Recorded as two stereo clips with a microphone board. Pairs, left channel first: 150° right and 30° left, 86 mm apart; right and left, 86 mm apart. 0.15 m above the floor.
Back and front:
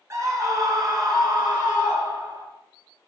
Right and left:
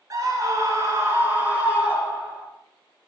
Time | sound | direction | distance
0.1 | a scream | 70° left | 1.9 m